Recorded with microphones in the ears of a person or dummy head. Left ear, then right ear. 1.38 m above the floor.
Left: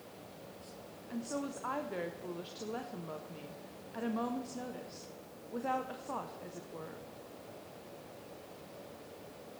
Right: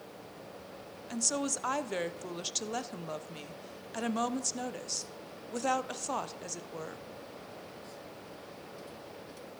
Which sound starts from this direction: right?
A woman speaking, at 1.1 s.